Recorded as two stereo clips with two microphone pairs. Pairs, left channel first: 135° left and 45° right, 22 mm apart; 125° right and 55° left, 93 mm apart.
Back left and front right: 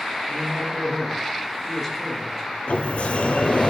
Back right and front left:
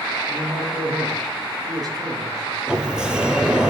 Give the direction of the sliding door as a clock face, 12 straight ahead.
7 o'clock.